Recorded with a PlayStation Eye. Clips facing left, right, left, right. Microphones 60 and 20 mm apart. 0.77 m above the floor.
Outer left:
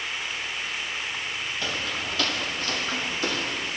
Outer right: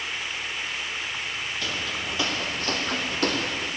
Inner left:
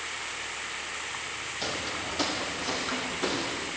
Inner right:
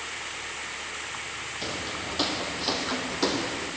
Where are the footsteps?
5° left (ahead or behind), 1.8 m; by 3.7 s 70° right (ahead or behind), 2.5 m.